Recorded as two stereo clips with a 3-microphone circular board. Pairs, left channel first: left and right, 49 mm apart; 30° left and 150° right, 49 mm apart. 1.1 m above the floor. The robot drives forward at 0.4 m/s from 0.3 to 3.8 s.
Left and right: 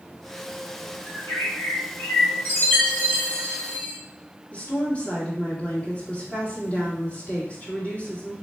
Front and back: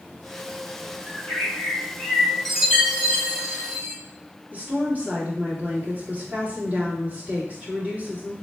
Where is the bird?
75° left, 2.0 m; by 2.4 s 95° left, 1.9 m.